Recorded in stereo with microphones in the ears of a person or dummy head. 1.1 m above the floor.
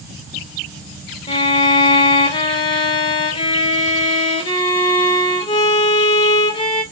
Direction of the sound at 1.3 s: 20° left (ahead or behind).